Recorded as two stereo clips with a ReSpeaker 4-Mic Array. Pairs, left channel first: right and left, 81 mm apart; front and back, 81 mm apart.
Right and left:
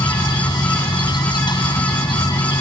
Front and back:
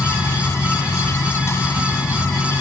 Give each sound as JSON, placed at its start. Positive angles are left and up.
{"t": 0.0, "sound": "an insect", "azimuth_deg": -60}